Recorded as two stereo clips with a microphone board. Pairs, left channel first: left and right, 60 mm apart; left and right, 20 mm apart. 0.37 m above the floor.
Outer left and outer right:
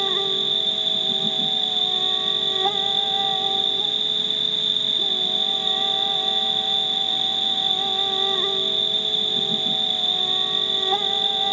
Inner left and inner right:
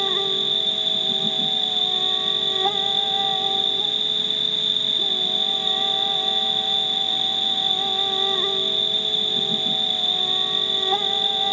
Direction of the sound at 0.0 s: Centre (ahead or behind).